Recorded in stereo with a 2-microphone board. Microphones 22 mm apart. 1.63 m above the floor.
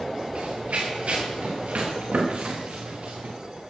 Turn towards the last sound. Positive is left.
turn(degrees=-75)  # may be behind; listen again after turning